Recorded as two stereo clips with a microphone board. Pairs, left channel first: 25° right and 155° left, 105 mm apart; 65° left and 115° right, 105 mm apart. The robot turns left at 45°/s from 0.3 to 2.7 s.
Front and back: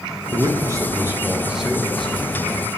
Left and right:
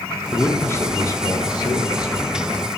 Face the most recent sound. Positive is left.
turn(degrees=25)